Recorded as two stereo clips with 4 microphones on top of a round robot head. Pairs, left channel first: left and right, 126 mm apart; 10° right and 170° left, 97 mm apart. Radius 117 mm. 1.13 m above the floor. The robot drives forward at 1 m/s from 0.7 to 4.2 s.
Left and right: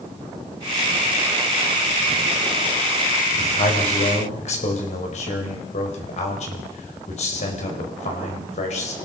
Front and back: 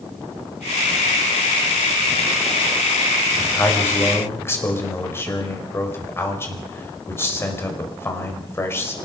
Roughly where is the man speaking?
Ahead left.